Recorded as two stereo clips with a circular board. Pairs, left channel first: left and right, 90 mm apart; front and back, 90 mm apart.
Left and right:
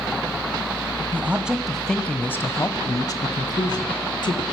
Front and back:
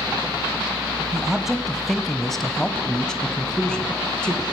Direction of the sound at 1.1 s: 105° right.